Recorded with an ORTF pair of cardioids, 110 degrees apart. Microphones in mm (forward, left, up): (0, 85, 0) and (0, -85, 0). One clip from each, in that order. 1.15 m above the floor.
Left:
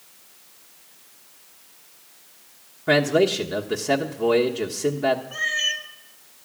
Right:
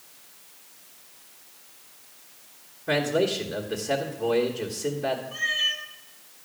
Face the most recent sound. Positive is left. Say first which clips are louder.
# left 2 dB
turn(degrees=35)